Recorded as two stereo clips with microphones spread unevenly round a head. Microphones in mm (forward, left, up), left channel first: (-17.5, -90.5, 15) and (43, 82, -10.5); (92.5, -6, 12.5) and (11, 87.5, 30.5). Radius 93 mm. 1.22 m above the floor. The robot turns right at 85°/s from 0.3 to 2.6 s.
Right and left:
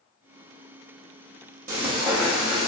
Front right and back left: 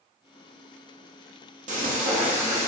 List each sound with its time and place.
1.7 s frying: 110° left, 1.0 m; by 2.7 s 170° right, 1.0 m